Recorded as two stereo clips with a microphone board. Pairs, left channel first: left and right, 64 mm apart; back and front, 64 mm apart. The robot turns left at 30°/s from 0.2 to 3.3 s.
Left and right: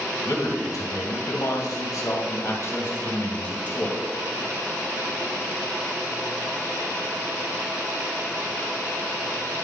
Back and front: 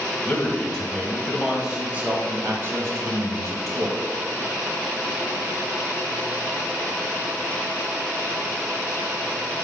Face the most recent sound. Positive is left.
turn(degrees=25)